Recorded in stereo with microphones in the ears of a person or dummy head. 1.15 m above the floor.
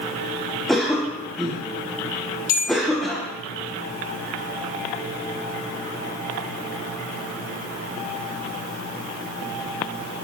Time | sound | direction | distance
0.7 | a cough | 5° left (ahead or behind) | 0.8 m
2.5 | a bell | 65° left (ahead or behind) | 3 m